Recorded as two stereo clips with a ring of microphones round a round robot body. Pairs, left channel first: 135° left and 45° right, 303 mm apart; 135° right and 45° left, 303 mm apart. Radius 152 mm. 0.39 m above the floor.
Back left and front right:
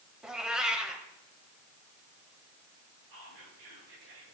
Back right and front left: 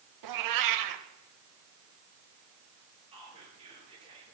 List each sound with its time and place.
0.2 s a cat meowing: 45° left, 1.0 m
3.1 s whispering: 30° right, 6.5 m